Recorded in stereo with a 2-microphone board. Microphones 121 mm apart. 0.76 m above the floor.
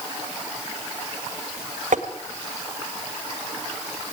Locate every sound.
1.9 s tapping: 85° right, 1.8 m